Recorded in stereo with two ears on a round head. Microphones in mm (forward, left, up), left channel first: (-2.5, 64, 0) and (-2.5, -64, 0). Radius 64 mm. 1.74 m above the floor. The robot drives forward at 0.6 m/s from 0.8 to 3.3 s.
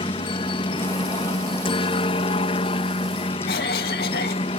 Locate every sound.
0.0 s a helicopter: 35° left (ahead or behind); by 4.6 s 40° left (ahead or behind)
3.5 s a cough: 75° left (ahead or behind)